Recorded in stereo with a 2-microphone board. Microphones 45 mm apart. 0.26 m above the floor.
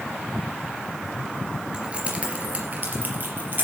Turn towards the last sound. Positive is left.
turn(degrees=-45)  # may be behind; listen again after turning